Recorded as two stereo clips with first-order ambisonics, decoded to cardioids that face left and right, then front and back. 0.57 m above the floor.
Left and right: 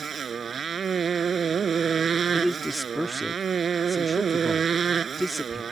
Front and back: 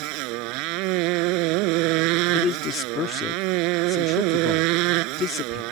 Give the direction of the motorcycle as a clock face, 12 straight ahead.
5 o'clock.